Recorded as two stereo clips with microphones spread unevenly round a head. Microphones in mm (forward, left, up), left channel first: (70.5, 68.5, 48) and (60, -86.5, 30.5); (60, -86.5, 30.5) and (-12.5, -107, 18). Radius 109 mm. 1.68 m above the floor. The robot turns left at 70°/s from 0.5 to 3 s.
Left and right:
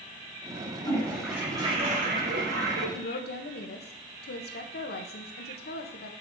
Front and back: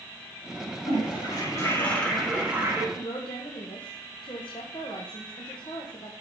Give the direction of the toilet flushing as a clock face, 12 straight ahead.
11 o'clock.